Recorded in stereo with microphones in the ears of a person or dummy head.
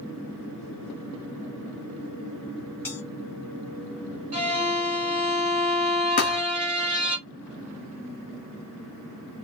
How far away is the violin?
About 1.6 m.